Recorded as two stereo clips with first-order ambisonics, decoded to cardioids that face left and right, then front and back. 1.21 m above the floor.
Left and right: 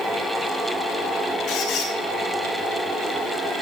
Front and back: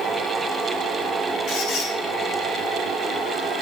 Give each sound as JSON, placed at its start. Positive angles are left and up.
{"t": 1.5, "sound": "a squeak", "azimuth_deg": 35, "distance_m": 3.5}